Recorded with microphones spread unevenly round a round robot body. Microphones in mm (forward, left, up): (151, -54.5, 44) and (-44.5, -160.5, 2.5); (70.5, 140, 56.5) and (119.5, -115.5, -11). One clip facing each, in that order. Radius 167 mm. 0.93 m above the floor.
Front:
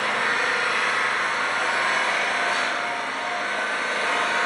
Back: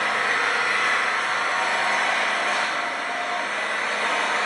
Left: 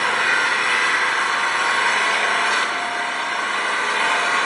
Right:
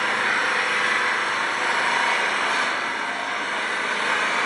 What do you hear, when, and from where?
0.0 s an engine running: 105° left, 1.5 m